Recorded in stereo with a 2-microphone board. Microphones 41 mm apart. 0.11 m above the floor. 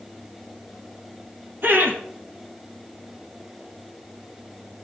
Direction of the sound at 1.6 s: 60° right (ahead or behind).